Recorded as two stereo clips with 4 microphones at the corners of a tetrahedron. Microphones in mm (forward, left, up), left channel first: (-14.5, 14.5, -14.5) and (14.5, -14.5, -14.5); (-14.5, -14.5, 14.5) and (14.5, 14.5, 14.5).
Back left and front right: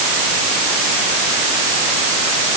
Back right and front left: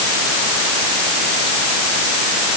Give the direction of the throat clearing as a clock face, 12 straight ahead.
No throat clearing in this recording.